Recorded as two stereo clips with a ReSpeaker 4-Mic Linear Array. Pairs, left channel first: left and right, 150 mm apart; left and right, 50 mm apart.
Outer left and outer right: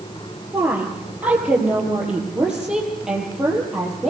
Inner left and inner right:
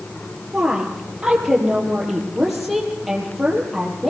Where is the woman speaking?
10° right (ahead or behind), 4.5 m; by 4.1 s centre (ahead or behind), 6.5 m.